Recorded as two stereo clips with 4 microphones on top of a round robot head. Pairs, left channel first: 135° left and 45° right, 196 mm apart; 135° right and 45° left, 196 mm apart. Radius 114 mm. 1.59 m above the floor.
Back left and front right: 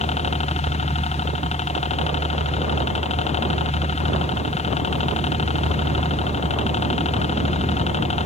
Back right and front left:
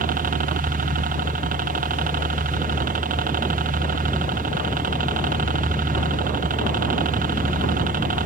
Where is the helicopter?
85° left.